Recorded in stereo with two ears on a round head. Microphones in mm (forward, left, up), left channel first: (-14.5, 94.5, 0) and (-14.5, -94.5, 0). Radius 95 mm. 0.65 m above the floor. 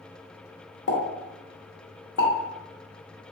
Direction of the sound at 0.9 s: 65° left (ahead or behind).